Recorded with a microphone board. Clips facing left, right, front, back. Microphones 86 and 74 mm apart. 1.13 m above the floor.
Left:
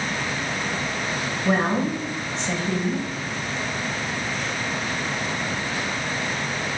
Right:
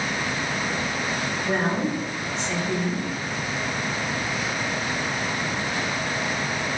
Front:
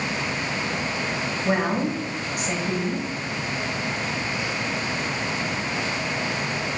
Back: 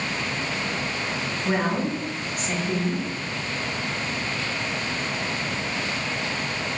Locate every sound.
1.4 s a woman speaking: 75° left, 1.9 m